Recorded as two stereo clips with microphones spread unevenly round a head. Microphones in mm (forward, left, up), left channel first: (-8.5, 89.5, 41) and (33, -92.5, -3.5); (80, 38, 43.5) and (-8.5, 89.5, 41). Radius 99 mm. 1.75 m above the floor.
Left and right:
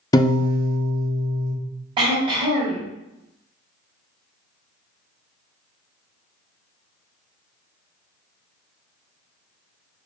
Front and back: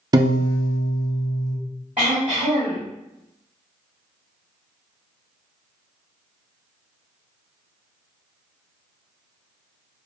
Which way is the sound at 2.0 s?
150° right.